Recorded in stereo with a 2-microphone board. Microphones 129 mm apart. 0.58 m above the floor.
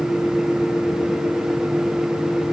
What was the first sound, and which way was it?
Only background noise.